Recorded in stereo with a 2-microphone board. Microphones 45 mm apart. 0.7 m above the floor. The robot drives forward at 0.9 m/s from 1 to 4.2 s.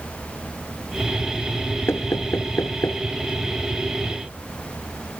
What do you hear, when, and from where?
1.9 s knocking: 75° left (ahead or behind); by 3.0 s 80° left